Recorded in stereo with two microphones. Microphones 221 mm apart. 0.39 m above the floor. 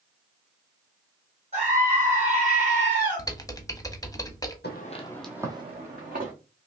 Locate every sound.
1.5 s a scream: 35° right (ahead or behind), 2.5 m
3.2 s typing on a keyboard: 15° left (ahead or behind), 0.6 m
4.6 s footsteps: 50° left (ahead or behind), 1.1 m; by 6.3 s 45° right (ahead or behind), 2 m